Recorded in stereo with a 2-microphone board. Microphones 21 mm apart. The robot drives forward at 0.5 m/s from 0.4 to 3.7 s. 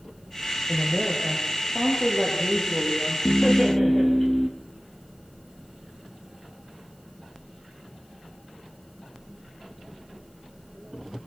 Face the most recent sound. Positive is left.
turn(degrees=20)  # may be behind; listen again after turning